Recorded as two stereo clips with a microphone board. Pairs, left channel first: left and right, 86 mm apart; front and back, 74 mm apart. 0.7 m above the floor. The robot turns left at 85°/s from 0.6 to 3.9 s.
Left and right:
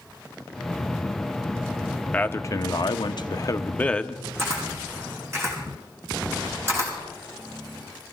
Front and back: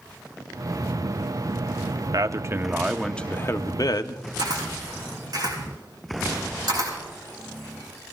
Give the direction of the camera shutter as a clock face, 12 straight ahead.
5 o'clock.